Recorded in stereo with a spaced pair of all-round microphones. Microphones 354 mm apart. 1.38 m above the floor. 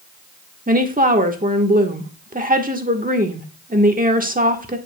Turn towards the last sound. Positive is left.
turn(degrees=-25)  # may be behind; listen again after turning